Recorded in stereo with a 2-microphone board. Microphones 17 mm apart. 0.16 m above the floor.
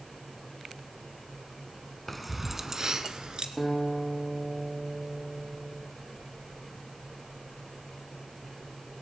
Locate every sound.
2.1 s keys jangling: 5° left (ahead or behind), 0.9 m; by 3.5 s 60° right (ahead or behind), 1.3 m
3.6 s a guitar: 20° right (ahead or behind), 3.5 m